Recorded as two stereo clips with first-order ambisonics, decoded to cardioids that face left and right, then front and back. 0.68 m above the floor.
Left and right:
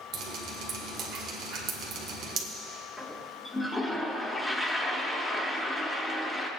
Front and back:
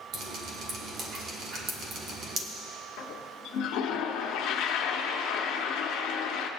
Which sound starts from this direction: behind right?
Dripping, at 0.1 s.